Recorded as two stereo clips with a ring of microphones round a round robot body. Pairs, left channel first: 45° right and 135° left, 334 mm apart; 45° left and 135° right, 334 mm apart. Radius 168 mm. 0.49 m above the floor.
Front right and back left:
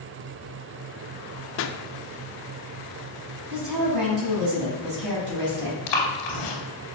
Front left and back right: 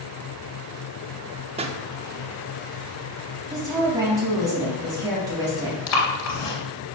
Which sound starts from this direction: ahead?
Breathing, at 5.9 s.